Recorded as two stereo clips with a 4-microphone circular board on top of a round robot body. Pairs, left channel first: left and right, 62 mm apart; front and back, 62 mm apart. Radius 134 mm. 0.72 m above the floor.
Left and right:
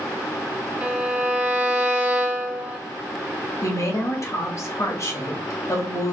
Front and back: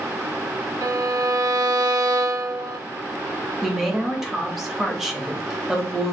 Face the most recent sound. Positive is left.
turn(degrees=95)